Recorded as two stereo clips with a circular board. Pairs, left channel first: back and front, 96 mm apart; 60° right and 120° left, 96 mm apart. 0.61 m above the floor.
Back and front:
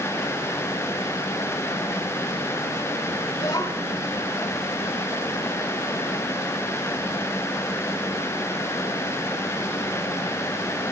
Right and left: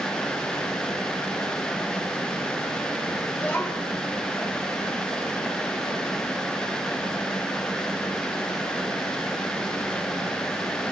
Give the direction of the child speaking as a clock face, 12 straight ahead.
5 o'clock.